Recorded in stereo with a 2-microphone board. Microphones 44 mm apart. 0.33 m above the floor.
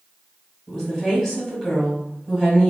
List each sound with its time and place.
0.7 s a woman speaking: 5° right (ahead or behind), 1.1 m